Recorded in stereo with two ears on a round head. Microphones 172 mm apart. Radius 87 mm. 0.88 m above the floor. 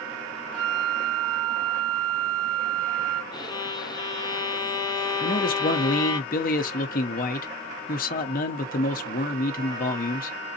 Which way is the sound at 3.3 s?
20° left (ahead or behind).